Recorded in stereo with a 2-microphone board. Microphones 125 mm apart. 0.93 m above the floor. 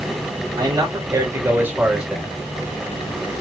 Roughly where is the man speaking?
Right.